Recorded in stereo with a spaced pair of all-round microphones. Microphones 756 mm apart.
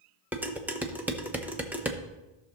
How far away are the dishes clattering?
About 0.7 m.